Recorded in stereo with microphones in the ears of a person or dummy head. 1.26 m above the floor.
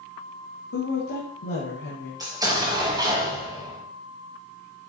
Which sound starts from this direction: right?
An explosion, at 2.2 s.